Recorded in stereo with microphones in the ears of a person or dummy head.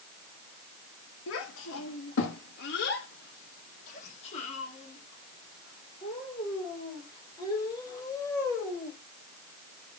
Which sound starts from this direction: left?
A child speaking, at 1.3 s.